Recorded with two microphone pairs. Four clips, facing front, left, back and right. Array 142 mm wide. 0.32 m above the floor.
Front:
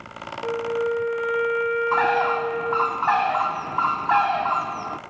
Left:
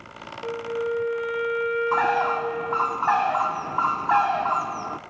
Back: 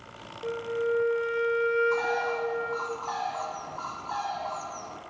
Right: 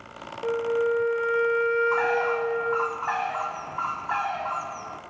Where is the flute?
65° right, 1.9 m.